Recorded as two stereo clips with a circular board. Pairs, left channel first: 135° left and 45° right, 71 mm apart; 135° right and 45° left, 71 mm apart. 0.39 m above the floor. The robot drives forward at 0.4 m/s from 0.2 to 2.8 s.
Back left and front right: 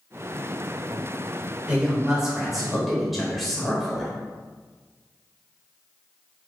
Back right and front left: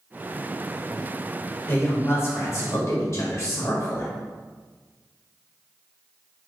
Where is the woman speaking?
110° right, 1.2 m; by 4.1 s 135° right, 1.3 m.